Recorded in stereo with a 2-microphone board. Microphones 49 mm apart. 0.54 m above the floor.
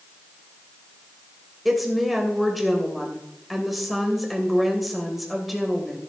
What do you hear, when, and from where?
1.6 s a woman speaking: centre (ahead or behind), 2.5 m